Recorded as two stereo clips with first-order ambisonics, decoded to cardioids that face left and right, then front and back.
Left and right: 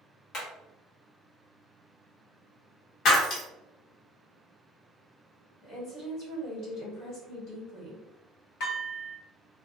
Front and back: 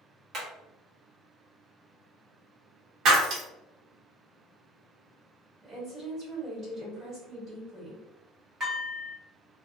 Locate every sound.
0.3 s hammering: 135° left, 1.1 m
3.0 s breaking glass: 130° left, 1.2 m
5.6 s a woman speaking: 120° left, 1.7 m
8.6 s dishes clattering: 115° left, 1.6 m